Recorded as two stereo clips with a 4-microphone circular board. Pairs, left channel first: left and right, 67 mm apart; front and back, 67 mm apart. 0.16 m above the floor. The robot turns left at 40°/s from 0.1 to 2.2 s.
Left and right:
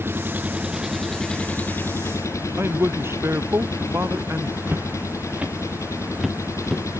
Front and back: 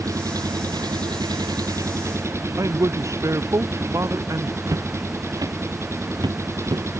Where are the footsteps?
145° right; by 6.8 s 175° left.